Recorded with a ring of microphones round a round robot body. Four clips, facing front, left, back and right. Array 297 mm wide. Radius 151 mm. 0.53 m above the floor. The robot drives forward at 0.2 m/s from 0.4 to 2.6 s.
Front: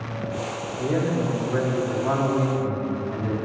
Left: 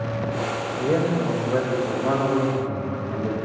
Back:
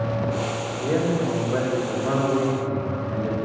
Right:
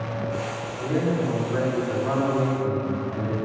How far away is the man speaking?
About 1.6 m.